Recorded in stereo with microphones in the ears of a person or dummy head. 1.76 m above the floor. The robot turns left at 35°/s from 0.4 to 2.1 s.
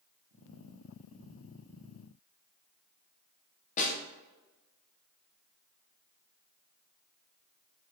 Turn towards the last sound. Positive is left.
turn(degrees=40)  # may be behind; listen again after turning